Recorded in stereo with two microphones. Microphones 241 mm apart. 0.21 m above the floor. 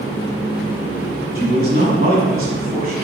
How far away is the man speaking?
About 1.3 m.